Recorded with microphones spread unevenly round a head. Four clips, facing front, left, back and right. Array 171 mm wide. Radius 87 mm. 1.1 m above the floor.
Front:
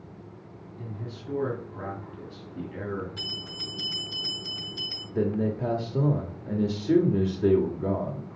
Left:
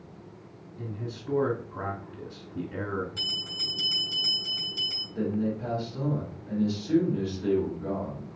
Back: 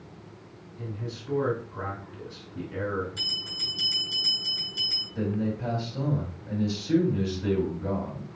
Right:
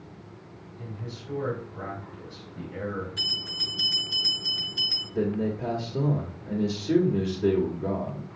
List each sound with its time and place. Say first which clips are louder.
0.8 s a man speaking: left 3 dB, back 3 dB; 90° left, 1.9 m
3.2 s a bell: right 1 dB, front 2 dB; 65° left, 5 m
5.2 s a man speaking: right 2 dB, front 3 dB; 35° right, 1.9 m